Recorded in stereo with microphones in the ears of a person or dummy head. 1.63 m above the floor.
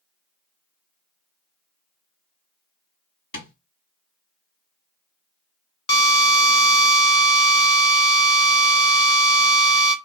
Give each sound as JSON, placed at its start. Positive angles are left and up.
{"t": 3.3, "sound": "tapping", "side_deg": 75, "distance_m": 2.0}
{"t": 5.9, "sound": "a drill", "side_deg": 25, "distance_m": 0.6}